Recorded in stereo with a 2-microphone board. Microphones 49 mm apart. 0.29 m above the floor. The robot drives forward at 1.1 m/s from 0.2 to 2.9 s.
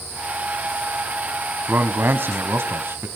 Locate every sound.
1.7 s a man speaking: 50° right (ahead or behind), 2 m; by 3.1 s 55° right (ahead or behind), 2 m